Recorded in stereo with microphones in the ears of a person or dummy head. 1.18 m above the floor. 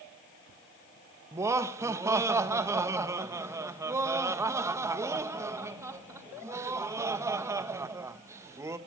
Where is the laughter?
15° right (ahead or behind), 1.0 m.